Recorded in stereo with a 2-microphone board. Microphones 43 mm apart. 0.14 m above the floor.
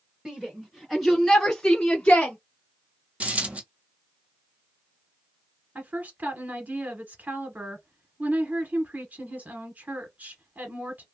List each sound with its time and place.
0.2 s a shout: 20° right (ahead or behind), 1.8 m; by 2.4 s 30° left (ahead or behind), 1.2 m
3.2 s a dropped coin: 35° right (ahead or behind), 1.2 m
5.8 s a woman speaking: 45° right (ahead or behind), 1.4 m